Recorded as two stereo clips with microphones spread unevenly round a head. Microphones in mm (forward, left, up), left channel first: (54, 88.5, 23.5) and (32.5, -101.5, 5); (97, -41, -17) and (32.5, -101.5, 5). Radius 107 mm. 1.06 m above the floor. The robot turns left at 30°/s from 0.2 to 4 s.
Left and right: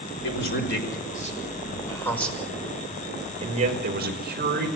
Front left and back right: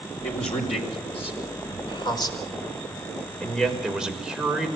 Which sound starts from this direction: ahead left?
A man speaking, at 0.2 s.